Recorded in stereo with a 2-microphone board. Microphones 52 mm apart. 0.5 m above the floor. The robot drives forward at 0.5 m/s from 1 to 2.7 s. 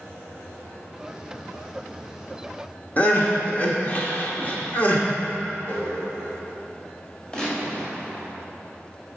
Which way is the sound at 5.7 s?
40° left (ahead or behind).